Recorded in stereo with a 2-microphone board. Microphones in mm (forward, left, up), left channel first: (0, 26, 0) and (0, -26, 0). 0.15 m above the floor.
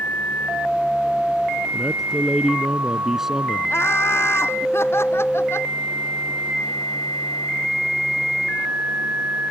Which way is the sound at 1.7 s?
5° right (ahead or behind).